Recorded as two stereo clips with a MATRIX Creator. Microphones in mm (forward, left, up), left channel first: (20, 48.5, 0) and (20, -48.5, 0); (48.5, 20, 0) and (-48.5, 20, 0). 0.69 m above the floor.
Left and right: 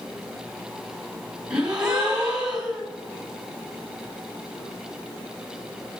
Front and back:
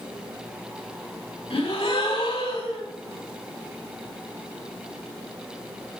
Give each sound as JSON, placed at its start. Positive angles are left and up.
{"t": 1.5, "sound": "a gasp", "azimuth_deg": -10, "distance_m": 3.0}